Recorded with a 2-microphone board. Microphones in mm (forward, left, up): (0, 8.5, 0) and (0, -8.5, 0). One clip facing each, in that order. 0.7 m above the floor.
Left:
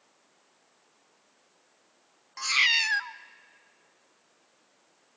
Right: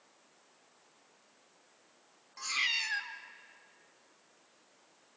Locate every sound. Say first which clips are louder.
2.4 s a cat meowing: left 9 dB; 40° left (ahead or behind), 0.6 m